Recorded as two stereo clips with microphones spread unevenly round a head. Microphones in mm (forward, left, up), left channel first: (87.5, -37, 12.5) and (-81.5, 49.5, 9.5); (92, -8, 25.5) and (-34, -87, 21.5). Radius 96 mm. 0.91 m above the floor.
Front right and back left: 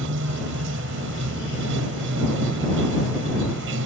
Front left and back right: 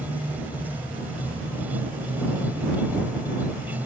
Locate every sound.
0.0 s running water: 130° left